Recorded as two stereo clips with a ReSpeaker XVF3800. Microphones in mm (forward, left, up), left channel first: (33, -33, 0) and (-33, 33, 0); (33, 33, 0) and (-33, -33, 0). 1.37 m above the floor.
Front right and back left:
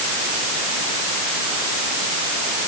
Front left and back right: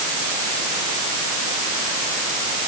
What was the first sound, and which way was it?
Only background noise.